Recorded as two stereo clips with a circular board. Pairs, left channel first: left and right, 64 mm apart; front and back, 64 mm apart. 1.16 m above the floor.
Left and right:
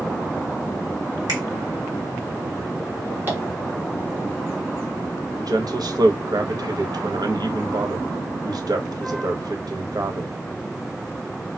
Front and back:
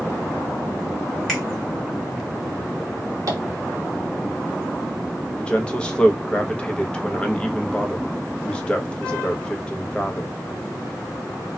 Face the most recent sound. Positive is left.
turn(degrees=-75)